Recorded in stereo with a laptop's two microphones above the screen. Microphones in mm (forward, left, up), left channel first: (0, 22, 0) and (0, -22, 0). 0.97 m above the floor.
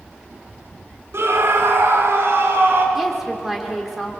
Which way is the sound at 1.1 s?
75° right (ahead or behind).